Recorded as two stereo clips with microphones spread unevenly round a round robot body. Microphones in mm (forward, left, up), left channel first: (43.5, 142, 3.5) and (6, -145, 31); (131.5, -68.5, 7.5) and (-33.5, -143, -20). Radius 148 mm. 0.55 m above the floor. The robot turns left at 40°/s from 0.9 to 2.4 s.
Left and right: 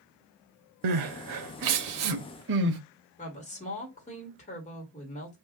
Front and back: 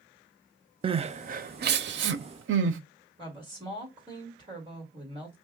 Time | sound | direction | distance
0.8 | crying | 90° right | 0.5 m
3.2 | a woman speaking | 145° left | 1.6 m